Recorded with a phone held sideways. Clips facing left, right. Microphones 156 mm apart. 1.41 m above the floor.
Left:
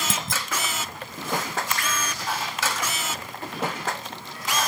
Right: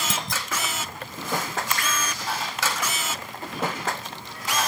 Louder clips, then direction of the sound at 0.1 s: Even; centre (ahead or behind).